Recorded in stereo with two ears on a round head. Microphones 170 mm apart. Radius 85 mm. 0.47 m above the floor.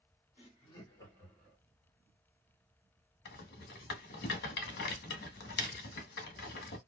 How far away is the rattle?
About 0.9 m.